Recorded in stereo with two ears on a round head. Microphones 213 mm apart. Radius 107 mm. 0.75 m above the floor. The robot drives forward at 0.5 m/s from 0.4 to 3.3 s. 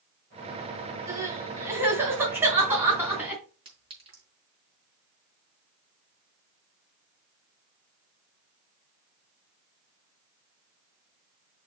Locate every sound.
1.1 s crying: 15° right (ahead or behind), 2.5 m; by 3.4 s 10° right (ahead or behind), 3.5 m
3.6 s a clink: 25° right (ahead or behind), 4 m